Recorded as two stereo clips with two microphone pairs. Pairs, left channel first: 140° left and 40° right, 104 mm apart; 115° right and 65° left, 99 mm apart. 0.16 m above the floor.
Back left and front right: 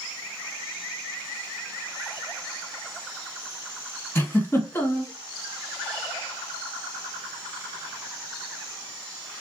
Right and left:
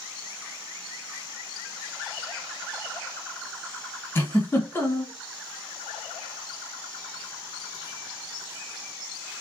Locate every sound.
4.2 s a giggle: 165° right, 1.1 m